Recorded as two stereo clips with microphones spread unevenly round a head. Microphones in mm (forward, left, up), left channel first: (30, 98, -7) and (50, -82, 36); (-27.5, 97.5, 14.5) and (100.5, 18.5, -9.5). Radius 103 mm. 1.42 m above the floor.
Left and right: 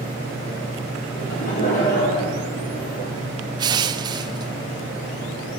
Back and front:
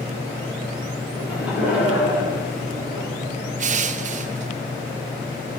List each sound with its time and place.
1.1 s laughter: 50° left, 7 m; by 3.1 s 45° left, 7.5 m
3.6 s crushing: 55° right, 0.6 m